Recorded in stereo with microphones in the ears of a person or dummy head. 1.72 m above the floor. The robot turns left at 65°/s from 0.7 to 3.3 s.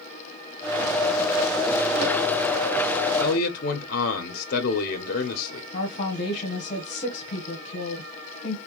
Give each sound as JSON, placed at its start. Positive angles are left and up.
{"t": 3.2, "sound": "a man speaking", "side_deg": 60, "distance_m": 0.8}
{"t": 5.7, "sound": "a woman speaking", "side_deg": 45, "distance_m": 1.4}